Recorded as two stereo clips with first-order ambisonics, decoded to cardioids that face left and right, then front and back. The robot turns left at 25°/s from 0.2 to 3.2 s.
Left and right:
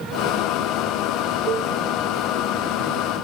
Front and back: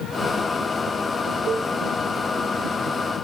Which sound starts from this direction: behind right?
A cowbell, at 1.5 s.